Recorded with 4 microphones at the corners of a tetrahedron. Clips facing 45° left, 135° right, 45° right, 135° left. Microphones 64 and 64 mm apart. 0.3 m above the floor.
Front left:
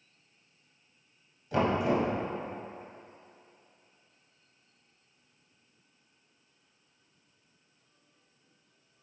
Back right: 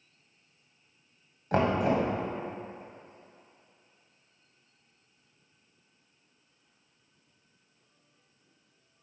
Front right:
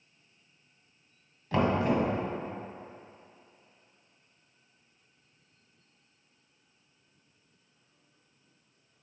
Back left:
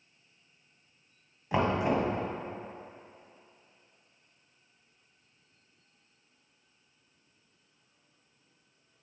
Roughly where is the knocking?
Behind right.